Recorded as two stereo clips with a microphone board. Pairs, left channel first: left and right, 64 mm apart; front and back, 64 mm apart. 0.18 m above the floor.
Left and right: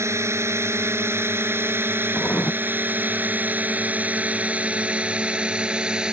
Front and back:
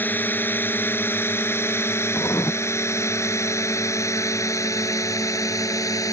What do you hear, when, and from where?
0.0 s a drone: 55° right; by 6.1 s 15° right
2.1 s writing: 25° left